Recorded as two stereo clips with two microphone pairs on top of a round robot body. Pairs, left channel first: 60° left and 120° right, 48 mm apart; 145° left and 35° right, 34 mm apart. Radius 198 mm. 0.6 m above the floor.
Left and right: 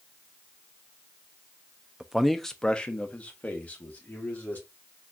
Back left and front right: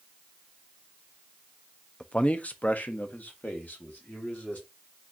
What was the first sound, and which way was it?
A man speaking, 175° left.